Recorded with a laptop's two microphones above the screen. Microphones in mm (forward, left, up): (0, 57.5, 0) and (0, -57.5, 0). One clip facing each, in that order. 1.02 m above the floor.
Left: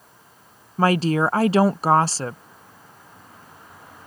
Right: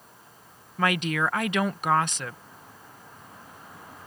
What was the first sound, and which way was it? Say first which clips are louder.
A woman speaking: left 7 dB; 30° left (ahead or behind).